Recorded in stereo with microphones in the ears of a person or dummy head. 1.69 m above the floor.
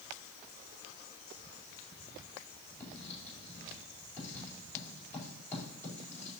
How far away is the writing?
About 4.5 m.